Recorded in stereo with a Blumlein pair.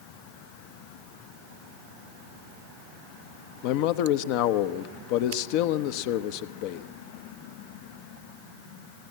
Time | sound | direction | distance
3.6 | a man speaking | 45° left | 0.9 m